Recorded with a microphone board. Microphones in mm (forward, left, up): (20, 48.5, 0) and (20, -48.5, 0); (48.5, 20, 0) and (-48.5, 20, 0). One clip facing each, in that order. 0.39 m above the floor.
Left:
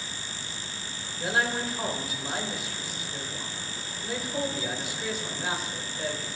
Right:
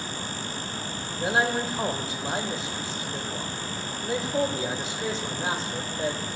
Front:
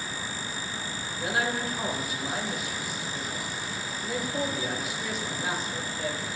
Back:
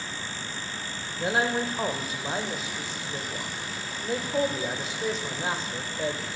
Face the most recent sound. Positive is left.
turn(degrees=-140)